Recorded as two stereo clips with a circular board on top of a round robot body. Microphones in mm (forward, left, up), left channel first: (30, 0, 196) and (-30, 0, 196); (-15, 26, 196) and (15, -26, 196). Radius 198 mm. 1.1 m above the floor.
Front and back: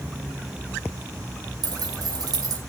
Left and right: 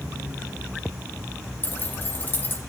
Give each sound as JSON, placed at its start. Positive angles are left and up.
{"t": 1.6, "sound": "keys jangling", "azimuth_deg": 180, "distance_m": 1.5}